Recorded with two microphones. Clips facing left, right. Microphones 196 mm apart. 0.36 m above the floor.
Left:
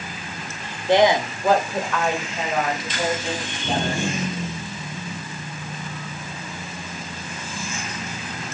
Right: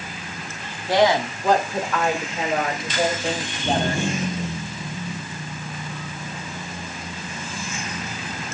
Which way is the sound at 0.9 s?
25° left (ahead or behind).